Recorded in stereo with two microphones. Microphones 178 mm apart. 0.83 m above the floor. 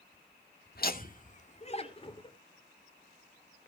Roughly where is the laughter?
Left.